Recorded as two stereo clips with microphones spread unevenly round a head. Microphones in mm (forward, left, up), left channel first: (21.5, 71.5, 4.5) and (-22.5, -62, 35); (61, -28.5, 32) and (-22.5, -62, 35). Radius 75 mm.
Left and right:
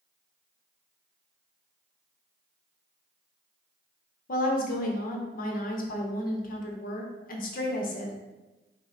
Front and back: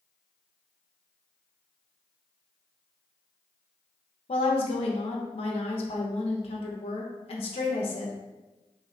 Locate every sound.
4.3 s a woman speaking: 45° left, 0.7 m